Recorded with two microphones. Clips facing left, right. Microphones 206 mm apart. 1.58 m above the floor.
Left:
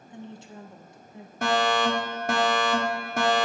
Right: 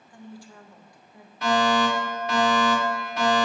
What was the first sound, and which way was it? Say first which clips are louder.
A woman speaking: left 2 dB; 20° left (ahead or behind).